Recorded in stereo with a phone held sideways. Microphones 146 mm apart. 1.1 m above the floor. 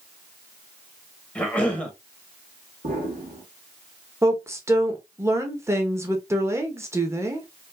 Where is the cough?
10° left (ahead or behind), 1.4 m.